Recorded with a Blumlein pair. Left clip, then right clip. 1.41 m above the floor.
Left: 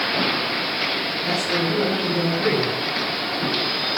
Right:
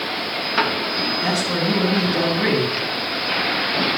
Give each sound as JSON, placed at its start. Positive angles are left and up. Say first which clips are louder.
{"t": 1.2, "sound": "a man speaking", "louder": "right 1 dB", "azimuth_deg": -25, "distance_m": 8.0}